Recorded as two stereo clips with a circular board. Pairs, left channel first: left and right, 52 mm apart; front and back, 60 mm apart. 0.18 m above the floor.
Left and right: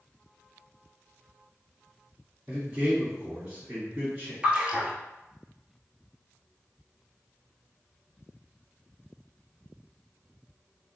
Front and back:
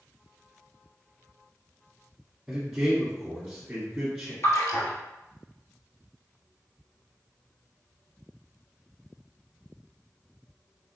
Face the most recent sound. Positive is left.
turn(degrees=-20)